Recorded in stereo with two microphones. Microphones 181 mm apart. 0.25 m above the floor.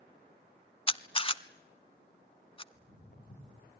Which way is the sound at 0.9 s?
30° left (ahead or behind).